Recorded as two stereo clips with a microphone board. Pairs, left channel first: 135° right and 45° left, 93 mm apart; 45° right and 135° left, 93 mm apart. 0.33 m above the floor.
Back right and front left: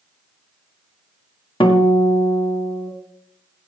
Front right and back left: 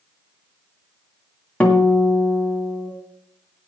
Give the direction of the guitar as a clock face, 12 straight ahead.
4 o'clock.